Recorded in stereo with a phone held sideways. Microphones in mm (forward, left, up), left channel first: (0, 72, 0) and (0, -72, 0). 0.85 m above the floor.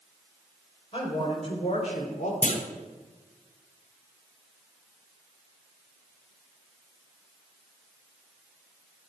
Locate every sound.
0.9 s a woman speaking: 40° left (ahead or behind), 4.5 m; by 2.3 s 60° left (ahead or behind), 3 m
2.4 s a clunk: 60° left (ahead or behind), 1.6 m